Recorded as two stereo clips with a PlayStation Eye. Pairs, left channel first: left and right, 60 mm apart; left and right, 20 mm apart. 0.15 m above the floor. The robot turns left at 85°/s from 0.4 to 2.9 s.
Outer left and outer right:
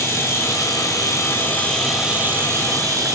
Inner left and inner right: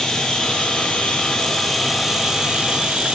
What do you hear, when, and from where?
0.0 s running water: 125° left, 0.9 m; by 3.1 s 85° right, 0.9 m